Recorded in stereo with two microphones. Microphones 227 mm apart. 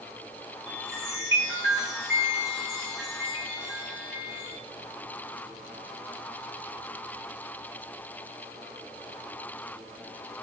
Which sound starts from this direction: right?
A chime, at 0.7 s.